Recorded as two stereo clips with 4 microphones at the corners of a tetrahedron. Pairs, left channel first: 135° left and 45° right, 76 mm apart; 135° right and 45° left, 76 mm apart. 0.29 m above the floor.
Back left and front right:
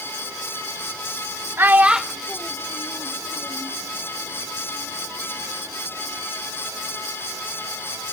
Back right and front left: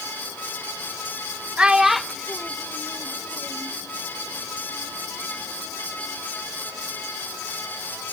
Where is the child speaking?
20° right, 0.6 m; by 3.7 s 170° left, 1.2 m.